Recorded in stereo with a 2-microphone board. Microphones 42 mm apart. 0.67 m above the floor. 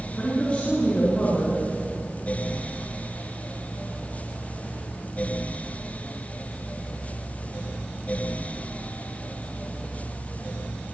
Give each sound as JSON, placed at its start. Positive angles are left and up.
{"t": 0.2, "sound": "a man speaking", "side_deg": 25, "distance_m": 8.0}